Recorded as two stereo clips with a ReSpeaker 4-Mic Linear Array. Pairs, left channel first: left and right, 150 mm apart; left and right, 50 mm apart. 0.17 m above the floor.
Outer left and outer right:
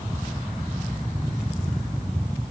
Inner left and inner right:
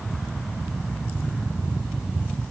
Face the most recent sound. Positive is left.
No sound to turn to.